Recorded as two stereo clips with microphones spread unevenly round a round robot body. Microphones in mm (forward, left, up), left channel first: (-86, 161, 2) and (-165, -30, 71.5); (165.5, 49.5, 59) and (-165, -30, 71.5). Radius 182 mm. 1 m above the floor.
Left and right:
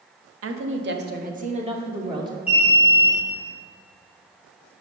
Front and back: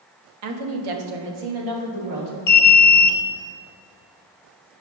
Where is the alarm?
25° right, 1.0 m.